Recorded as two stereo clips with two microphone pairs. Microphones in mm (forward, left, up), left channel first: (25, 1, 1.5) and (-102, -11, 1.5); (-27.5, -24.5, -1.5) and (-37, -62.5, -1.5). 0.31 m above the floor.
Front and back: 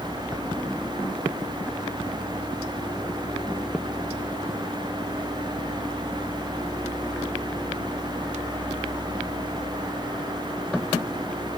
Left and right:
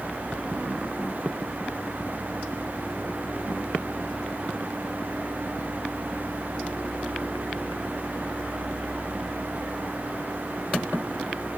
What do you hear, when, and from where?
Only background noise.